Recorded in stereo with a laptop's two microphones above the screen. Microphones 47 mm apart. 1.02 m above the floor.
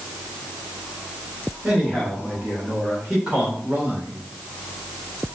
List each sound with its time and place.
1.6 s a man speaking: 5° right (ahead or behind), 4.5 m; by 4.2 s 40° right (ahead or behind), 4 m